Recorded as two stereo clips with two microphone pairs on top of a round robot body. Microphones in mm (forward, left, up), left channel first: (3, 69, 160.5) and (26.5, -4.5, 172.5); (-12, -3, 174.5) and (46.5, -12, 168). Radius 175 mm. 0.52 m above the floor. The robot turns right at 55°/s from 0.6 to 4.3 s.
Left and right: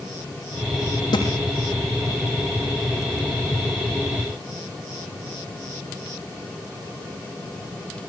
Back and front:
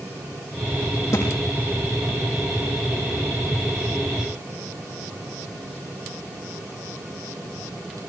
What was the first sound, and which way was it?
A thud, 140° left.